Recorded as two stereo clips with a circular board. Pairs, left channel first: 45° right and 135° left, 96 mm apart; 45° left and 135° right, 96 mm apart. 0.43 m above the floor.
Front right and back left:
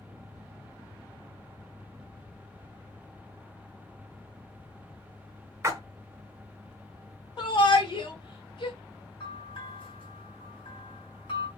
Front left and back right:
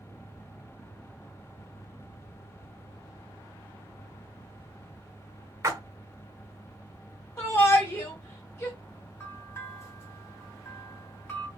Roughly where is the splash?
Behind.